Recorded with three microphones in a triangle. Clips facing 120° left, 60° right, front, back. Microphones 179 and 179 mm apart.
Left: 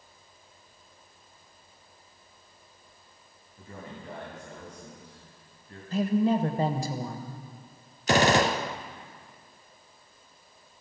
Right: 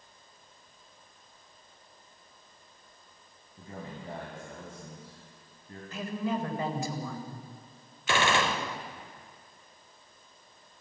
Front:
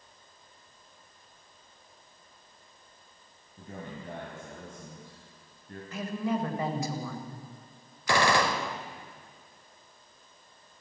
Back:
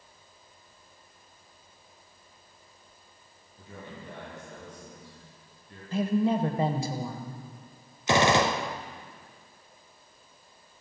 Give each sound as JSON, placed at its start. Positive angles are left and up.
{"t": 3.6, "sound": "a man speaking", "azimuth_deg": -10, "distance_m": 2.5}
{"t": 5.9, "sound": "a woman speaking", "azimuth_deg": 145, "distance_m": 1.3}
{"t": 8.1, "sound": "a gunshot", "azimuth_deg": 125, "distance_m": 0.5}